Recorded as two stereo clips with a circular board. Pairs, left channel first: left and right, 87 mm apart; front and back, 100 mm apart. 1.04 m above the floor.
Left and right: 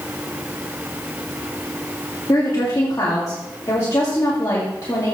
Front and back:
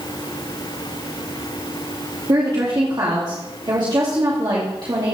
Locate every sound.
2.3 s a woman speaking: 135° left, 2 m